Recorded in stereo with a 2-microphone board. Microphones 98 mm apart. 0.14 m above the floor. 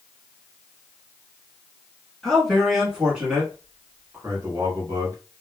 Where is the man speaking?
5° left (ahead or behind), 1.8 m; by 5.2 s 35° right (ahead or behind), 2.0 m.